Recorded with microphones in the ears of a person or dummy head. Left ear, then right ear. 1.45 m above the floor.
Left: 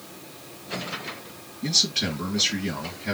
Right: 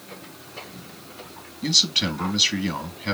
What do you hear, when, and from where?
1.6 s a man speaking: 40° right (ahead or behind), 2.5 m